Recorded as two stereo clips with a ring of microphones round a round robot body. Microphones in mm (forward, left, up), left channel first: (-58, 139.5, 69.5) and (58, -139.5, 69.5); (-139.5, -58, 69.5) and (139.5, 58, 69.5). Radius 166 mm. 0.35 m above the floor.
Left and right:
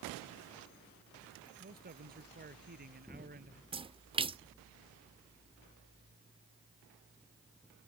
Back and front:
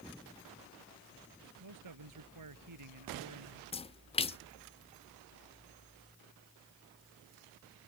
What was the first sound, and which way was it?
A man speaking, 5° right.